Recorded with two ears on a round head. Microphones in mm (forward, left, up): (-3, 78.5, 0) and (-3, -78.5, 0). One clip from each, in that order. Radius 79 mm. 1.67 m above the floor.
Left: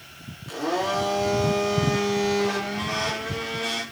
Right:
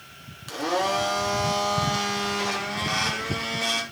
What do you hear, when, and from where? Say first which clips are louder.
0.5 s a blender: right 1 dB; 65° right (ahead or behind), 4 m